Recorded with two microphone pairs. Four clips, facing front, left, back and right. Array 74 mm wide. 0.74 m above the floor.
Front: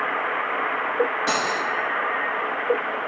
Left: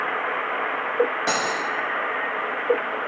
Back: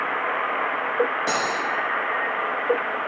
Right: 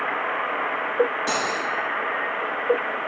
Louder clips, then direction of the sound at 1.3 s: Left 1 dB, even; 110° left.